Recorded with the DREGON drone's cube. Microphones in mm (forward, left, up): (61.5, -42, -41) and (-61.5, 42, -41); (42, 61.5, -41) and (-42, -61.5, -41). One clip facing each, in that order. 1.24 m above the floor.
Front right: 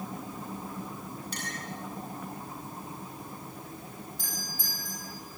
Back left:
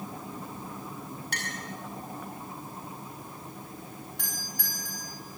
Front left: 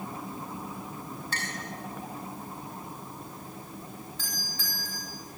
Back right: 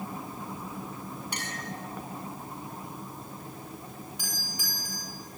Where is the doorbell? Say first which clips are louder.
Even, back right 1 dB; 160° left, 9 m.